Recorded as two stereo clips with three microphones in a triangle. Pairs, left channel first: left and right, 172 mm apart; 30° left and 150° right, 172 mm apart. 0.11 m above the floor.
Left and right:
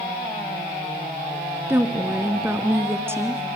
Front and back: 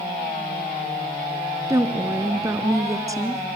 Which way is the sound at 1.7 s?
135° right.